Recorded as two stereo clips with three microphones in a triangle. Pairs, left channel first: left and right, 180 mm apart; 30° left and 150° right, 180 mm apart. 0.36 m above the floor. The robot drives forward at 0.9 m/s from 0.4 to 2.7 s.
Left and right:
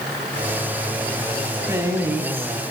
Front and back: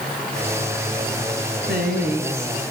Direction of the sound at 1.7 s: 160° right.